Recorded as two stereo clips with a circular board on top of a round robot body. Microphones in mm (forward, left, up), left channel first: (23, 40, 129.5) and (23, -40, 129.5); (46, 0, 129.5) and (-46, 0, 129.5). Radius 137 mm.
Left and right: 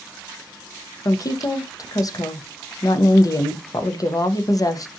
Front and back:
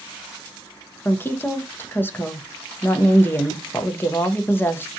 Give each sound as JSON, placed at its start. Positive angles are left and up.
{"t": 1.1, "sound": "a woman speaking", "azimuth_deg": 60, "distance_m": 0.7}